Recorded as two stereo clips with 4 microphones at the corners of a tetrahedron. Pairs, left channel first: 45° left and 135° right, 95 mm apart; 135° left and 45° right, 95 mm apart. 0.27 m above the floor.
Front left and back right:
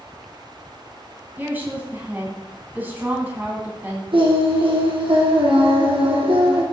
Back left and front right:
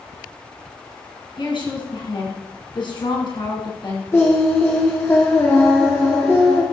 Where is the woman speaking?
155° left, 3 m.